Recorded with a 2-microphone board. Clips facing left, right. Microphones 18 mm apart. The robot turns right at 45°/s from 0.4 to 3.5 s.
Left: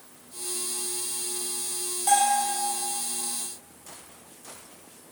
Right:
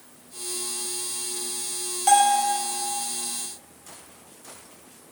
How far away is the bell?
About 1.2 m.